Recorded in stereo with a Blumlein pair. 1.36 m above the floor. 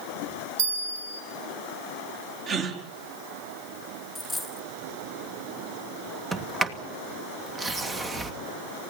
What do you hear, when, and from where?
0.6 s a bell: 55° right, 4 m
2.5 s a gasp: 30° right, 4.5 m
4.2 s a dropped coin: 5° left, 2.5 m
6.3 s a sliding door: 15° right, 1.9 m